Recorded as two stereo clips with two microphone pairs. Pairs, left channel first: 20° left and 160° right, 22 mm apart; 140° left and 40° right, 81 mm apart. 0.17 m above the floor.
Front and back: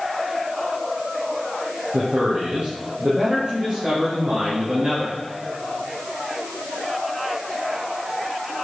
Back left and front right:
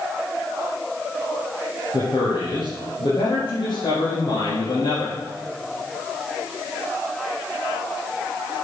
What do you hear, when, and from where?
1.9 s a man speaking: 165° left, 5 m; by 5.2 s 145° left, 8 m